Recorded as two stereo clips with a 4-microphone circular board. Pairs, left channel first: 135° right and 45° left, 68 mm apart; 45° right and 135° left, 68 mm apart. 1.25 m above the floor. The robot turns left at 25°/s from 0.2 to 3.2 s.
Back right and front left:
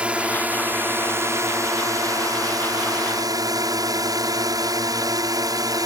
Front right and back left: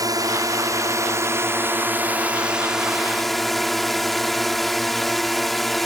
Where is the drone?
115° left; by 5.9 s 40° left.